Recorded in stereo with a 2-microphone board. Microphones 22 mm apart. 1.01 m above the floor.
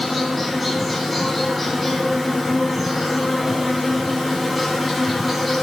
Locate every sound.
0.0 s an insect: 5° right (ahead or behind), 4 m